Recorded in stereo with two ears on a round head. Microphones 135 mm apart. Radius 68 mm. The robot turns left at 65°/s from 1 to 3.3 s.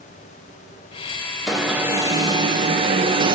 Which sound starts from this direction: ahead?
An alarm, at 1.5 s.